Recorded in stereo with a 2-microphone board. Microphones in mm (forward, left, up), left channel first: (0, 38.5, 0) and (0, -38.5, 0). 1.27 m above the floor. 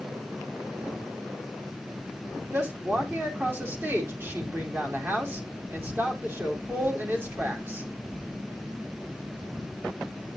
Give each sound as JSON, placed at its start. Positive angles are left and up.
{"t": 2.5, "sound": "a woman speaking", "side_deg": -30, "distance_m": 3.5}